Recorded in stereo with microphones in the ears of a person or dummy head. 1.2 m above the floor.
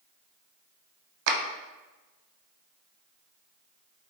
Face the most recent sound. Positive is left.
turn(degrees=-65)  # may be behind; listen again after turning